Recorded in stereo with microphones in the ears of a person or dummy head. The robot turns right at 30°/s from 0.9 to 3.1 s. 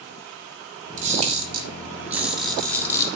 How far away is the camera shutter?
About 2.5 m.